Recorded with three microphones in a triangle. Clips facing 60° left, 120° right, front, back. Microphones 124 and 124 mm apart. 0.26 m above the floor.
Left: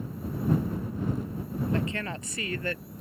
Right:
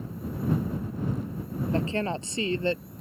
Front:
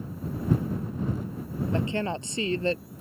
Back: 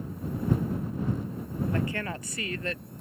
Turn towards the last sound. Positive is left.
turn(degrees=-55)